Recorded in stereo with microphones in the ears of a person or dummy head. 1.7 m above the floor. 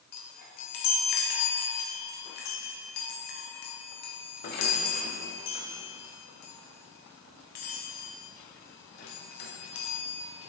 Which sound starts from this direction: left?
A chime, at 0.1 s.